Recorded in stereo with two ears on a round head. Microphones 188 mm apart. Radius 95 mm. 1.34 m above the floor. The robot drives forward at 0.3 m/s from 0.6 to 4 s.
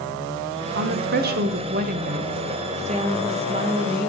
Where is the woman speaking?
50° right (ahead or behind), 0.7 m; by 4.1 s 25° right (ahead or behind), 1.1 m.